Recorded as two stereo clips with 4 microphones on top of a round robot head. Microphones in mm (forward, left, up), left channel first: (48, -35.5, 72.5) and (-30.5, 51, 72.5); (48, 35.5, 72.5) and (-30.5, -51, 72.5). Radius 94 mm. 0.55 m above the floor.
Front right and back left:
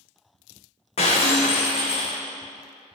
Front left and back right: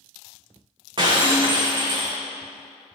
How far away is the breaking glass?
About 1.7 m.